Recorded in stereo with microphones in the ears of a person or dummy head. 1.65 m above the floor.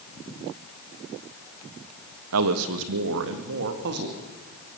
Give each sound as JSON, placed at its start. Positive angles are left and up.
{"t": 2.3, "sound": "a man speaking", "side_deg": -65, "distance_m": 1.6}